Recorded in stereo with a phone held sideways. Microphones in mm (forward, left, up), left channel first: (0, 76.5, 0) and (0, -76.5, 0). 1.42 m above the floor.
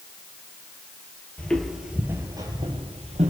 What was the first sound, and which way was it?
Footsteps, 10° left (ahead or behind).